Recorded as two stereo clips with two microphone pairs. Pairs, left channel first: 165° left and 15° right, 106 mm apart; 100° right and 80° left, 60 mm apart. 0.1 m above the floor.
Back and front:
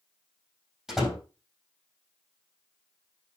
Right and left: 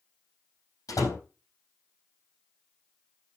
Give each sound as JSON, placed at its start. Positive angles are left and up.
{"t": 0.9, "sound": "a door slam", "azimuth_deg": -100, "distance_m": 3.5}